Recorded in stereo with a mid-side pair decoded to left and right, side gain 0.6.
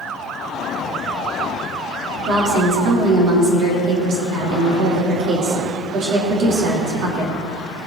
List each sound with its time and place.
2.3 s a woman speaking: 65° right, 3.5 m